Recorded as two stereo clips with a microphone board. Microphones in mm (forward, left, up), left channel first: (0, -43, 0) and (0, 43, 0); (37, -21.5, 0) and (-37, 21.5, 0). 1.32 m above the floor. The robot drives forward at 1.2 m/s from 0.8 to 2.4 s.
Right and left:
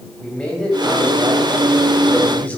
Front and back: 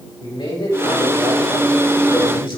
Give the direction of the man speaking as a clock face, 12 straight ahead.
12 o'clock.